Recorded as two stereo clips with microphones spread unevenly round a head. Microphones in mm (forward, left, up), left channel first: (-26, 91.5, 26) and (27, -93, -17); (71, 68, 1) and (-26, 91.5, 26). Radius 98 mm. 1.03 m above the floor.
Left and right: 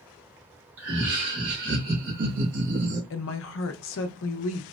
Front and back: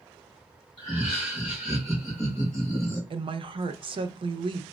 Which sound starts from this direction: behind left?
A woman speaking, at 3.1 s.